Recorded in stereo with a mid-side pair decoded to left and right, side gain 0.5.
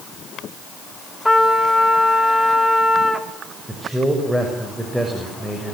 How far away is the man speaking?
About 6 m.